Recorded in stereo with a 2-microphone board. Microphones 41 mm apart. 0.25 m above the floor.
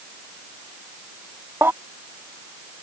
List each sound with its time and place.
1.6 s a baby crying: 70° right (ahead or behind)